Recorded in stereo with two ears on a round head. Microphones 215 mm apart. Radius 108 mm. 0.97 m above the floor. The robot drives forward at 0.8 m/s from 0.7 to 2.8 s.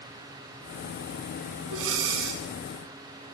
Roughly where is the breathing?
Right.